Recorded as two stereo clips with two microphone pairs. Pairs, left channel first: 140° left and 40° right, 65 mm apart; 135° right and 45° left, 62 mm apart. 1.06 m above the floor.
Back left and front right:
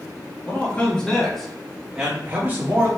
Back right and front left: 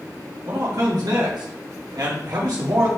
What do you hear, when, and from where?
0.5 s a man speaking: 70° left, 1.7 m; by 2.9 s 15° left, 1.4 m